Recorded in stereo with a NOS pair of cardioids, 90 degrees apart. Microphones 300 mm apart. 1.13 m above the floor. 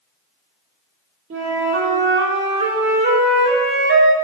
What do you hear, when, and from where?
1.3 s a flute: 40° right, 2 m